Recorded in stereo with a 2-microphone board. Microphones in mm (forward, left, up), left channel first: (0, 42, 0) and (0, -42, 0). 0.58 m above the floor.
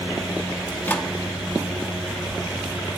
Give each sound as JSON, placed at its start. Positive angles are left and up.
{"t": 0.7, "sound": "a microwave", "side_deg": 20, "distance_m": 1.0}